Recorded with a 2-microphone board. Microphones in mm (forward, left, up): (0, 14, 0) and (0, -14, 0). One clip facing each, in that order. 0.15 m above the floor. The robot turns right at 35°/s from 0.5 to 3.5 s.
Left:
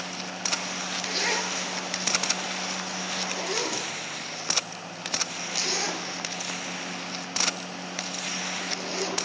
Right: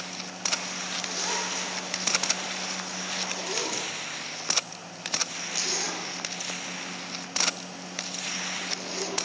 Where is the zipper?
60° left (ahead or behind), 3 m; by 9.2 s 15° left (ahead or behind), 3 m.